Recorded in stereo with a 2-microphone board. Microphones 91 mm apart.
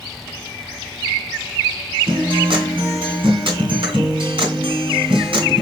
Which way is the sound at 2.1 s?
70° right (ahead or behind).